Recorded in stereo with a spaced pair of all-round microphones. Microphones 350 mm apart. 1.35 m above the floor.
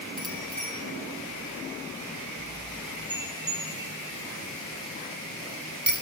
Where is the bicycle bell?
Centre (ahead or behind), 9.5 m; by 5.9 s 25° left (ahead or behind), 8 m.